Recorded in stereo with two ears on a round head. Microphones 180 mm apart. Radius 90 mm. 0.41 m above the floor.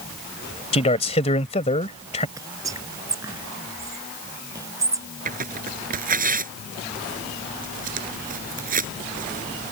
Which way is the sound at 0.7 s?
30° left (ahead or behind).